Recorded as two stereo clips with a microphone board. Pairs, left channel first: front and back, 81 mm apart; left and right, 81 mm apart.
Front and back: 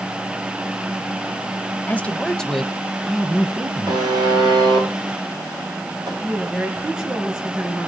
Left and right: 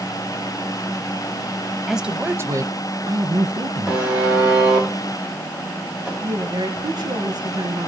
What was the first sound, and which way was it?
A man speaking, 5° right.